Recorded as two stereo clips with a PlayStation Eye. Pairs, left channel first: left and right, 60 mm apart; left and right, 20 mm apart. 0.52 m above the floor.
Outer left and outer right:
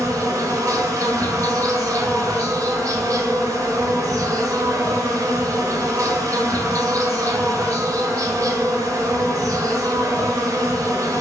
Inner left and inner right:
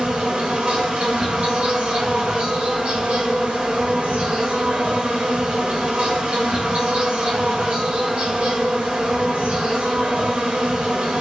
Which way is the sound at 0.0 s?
65° right (ahead or behind).